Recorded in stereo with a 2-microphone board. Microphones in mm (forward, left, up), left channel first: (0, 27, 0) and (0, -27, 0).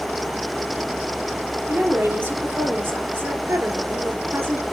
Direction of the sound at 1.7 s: 40° right (ahead or behind).